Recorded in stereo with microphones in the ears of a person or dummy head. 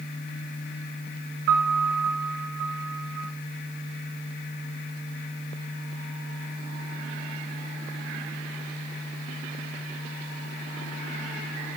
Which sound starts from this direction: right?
A piano, at 1.5 s.